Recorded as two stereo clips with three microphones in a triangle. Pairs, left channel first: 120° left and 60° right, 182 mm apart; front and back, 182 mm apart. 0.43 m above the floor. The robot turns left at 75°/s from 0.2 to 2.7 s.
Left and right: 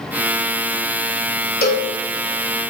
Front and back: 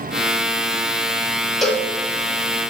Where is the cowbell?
90° left, 1.6 m; by 1.9 s 65° left, 1.6 m.